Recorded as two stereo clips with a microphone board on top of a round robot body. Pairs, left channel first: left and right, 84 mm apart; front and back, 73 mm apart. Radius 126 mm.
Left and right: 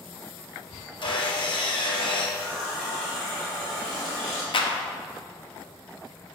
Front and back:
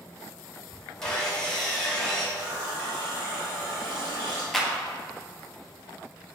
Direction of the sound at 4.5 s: 90° left.